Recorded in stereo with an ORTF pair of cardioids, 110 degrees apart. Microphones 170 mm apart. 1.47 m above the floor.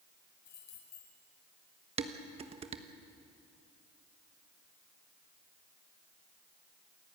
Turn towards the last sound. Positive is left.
turn(degrees=-40)